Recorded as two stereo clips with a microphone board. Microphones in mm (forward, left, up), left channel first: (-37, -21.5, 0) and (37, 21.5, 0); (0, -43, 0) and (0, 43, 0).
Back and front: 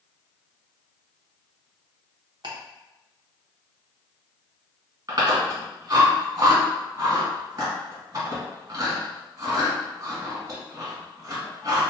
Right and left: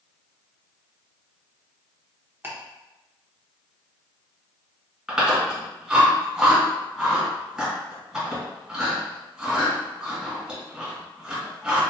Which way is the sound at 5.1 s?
10° left.